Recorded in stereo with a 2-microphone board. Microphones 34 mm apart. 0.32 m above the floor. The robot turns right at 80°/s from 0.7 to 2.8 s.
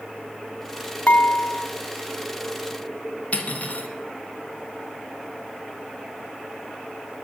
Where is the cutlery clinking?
45° left (ahead or behind), 2 m.